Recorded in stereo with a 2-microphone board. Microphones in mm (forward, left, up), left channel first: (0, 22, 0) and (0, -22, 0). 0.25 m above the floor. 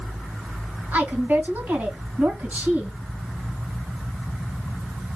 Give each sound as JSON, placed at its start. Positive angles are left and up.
{"t": 0.9, "sound": "a woman speaking", "side_deg": -45, "distance_m": 2.5}